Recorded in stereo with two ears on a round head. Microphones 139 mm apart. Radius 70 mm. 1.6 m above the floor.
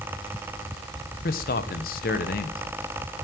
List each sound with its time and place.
1.2 s a man speaking: 60° left (ahead or behind), 1.5 m